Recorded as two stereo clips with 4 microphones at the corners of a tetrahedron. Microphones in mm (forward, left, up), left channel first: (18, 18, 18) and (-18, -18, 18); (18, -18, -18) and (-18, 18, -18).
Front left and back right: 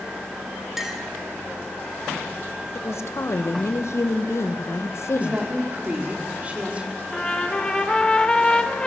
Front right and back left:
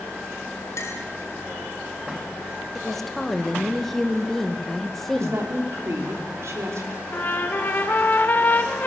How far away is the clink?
About 2.5 m.